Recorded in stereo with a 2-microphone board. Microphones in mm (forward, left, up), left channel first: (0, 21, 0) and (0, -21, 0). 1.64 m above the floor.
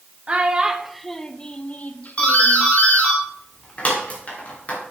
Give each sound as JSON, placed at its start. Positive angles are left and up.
{"t": 0.3, "sound": "a child speaking", "side_deg": -30, "distance_m": 0.7}
{"t": 2.2, "sound": "a doorbell", "side_deg": 35, "distance_m": 2.5}